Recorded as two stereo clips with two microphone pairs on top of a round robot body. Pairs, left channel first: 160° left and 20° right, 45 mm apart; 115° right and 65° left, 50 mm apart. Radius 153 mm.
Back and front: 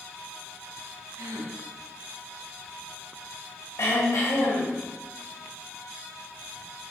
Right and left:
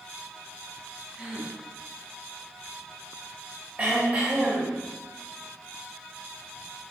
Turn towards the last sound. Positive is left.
turn(degrees=130)